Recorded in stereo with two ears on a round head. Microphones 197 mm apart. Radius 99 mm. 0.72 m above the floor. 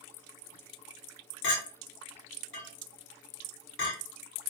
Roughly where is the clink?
Left.